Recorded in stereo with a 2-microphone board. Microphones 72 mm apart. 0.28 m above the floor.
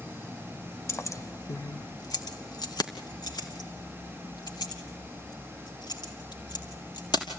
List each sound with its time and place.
0.9 s keys jangling: 40° left (ahead or behind), 0.9 m; by 7.3 s 85° left, 5 m